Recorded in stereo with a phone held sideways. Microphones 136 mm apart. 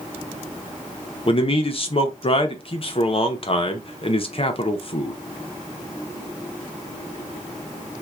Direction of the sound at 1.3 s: 45° left (ahead or behind).